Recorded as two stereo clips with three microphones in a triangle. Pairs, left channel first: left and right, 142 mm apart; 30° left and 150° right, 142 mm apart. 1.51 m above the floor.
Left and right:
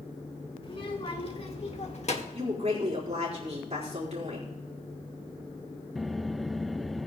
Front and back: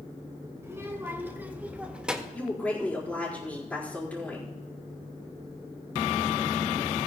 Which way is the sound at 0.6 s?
140° left.